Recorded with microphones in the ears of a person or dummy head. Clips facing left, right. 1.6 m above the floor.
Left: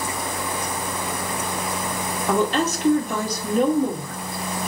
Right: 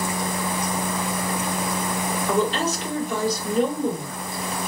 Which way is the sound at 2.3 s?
45° left (ahead or behind).